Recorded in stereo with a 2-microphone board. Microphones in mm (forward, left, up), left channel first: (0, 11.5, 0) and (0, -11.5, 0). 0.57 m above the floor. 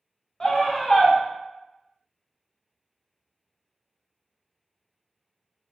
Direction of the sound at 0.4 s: 30° left (ahead or behind).